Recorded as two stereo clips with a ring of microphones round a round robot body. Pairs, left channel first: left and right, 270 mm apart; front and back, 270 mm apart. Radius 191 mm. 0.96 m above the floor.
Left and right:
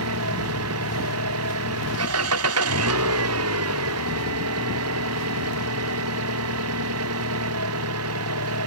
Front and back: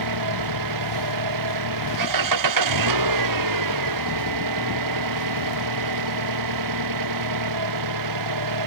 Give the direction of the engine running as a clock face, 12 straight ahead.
5 o'clock.